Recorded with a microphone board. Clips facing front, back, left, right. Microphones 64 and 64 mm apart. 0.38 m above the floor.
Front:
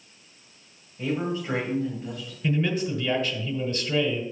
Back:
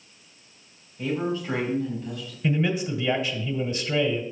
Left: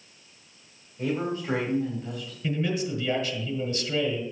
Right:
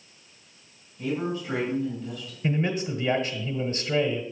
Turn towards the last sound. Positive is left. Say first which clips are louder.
# back 1 dB, right 1 dB
turn(degrees=-110)